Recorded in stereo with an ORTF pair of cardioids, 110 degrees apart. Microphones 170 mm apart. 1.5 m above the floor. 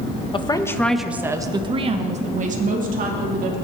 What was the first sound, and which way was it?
A woman speaking, 30° left.